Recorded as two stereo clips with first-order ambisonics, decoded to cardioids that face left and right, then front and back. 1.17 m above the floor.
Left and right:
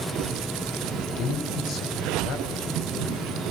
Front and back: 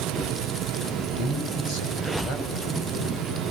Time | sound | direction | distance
1.2 | a man speaking | 45° left | 7 m